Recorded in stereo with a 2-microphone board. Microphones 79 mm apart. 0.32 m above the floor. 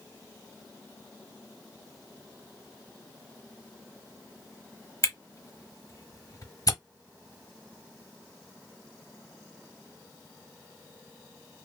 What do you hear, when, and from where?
5.0 s a camera shutter: 50° left (ahead or behind), 1.0 m